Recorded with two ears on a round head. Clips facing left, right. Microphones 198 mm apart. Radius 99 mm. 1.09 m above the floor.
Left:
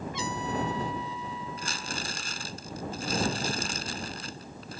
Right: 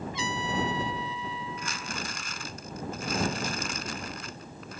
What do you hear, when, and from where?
0.1 s a trumpet: 45° left (ahead or behind)
1.6 s crumpling: 30° left (ahead or behind)